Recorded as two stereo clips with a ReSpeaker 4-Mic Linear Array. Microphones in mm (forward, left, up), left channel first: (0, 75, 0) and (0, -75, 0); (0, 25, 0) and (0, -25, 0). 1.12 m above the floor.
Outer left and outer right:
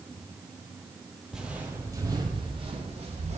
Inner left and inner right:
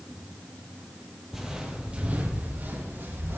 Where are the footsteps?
5° right (ahead or behind), 2 m; by 3.4 s 50° right (ahead or behind), 3.5 m.